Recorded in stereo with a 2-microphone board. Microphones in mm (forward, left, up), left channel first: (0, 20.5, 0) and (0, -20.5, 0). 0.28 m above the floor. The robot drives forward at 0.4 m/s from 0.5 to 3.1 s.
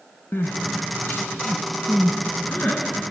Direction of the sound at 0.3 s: 75° left (ahead or behind).